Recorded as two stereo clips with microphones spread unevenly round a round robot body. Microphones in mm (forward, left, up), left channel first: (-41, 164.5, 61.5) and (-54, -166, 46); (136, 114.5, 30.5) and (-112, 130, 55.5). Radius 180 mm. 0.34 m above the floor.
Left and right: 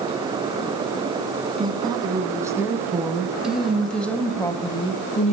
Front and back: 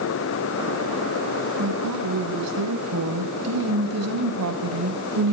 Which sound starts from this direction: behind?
A woman speaking, at 1.6 s.